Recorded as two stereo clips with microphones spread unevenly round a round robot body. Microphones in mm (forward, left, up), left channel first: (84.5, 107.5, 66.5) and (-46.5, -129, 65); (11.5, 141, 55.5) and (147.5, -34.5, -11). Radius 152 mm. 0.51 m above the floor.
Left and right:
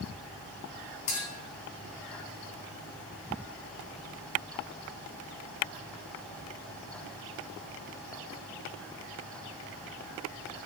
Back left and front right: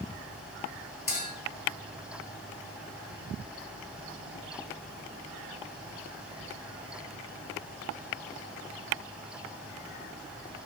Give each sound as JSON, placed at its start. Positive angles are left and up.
{"t": 1.1, "sound": "a clink", "azimuth_deg": 75, "distance_m": 1.5}